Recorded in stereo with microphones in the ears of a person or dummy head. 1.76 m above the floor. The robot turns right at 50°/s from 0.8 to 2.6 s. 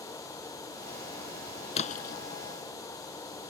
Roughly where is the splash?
Left.